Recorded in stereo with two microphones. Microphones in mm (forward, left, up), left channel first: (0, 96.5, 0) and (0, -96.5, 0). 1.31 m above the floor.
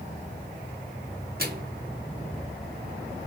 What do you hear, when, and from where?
1.4 s a microwave: 55° right (ahead or behind), 0.9 m